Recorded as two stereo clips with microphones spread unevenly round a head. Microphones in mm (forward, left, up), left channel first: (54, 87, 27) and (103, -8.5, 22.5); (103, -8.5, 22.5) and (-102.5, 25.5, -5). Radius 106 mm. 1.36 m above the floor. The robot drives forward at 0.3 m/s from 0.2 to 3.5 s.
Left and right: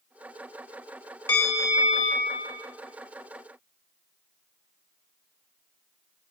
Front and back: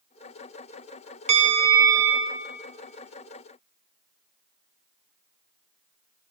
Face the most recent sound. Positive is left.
turn(degrees=170)